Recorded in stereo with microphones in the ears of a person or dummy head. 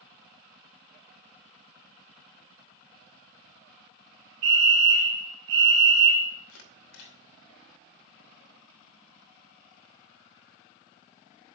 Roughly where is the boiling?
No boiling in this recording.